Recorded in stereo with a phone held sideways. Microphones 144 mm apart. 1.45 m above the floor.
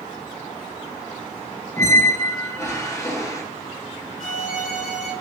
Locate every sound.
1.8 s a squeak: 20° left (ahead or behind), 0.6 m
4.2 s a violin: 55° left (ahead or behind), 1.3 m